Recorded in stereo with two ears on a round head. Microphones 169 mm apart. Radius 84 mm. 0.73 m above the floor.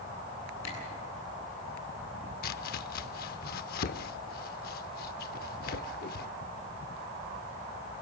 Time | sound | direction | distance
0.6 | a camera shutter | 80° left | 9.5 m
2.4 | chopping | 50° left (ahead or behind) | 0.7 m